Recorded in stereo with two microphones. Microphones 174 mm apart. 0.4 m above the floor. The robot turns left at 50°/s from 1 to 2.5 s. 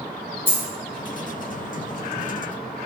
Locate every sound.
0.5 s a dropped coin: 10° right (ahead or behind), 1.1 m